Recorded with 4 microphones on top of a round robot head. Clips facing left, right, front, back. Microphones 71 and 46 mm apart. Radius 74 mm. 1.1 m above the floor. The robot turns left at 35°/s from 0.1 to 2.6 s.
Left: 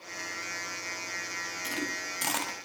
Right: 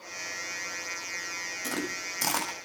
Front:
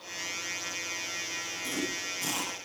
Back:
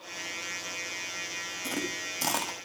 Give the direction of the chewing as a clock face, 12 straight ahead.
5 o'clock.